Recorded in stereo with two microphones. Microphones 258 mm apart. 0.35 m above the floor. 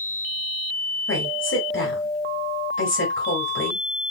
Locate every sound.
1.1 s a woman speaking: 60° left (ahead or behind), 2 m